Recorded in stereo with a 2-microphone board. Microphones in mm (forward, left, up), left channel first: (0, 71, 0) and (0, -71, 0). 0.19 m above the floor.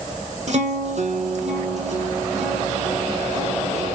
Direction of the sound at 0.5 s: 55° right (ahead or behind).